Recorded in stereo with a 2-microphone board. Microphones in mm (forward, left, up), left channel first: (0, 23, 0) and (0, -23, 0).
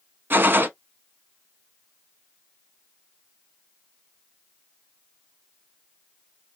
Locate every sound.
0.3 s a gunshot: 50° right (ahead or behind), 0.6 m